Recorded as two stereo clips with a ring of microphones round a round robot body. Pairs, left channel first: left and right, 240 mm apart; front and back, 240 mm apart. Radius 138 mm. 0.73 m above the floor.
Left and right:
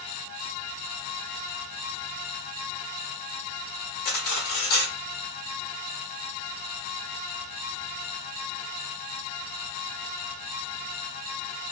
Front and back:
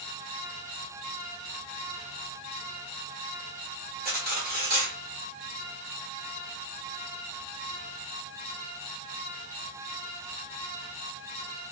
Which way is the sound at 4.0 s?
120° left.